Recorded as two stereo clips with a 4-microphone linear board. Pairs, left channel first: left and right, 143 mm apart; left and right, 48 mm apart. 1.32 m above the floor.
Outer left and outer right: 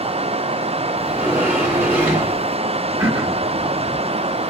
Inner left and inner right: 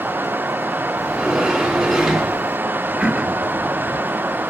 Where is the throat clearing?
20° right (ahead or behind), 0.8 m.